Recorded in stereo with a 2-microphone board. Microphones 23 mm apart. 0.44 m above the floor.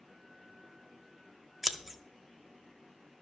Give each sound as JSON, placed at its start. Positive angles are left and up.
{"t": 1.6, "sound": "scissors", "side_deg": -10, "distance_m": 0.5}